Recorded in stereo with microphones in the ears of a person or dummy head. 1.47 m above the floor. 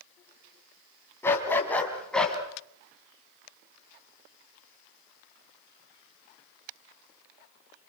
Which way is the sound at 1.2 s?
15° left (ahead or behind).